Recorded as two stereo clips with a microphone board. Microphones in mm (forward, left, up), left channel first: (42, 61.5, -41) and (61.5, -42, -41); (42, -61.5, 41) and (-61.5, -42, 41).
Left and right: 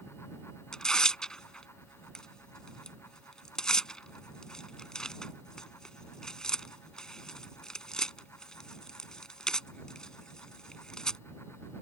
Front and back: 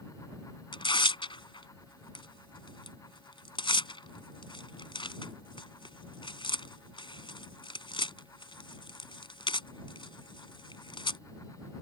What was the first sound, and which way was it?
Tearing paper, 15° left.